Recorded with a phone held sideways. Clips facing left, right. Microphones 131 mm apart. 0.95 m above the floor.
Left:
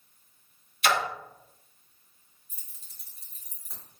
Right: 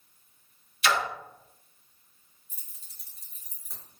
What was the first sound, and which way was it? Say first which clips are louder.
A splash: left 1 dB; 50° left (ahead or behind).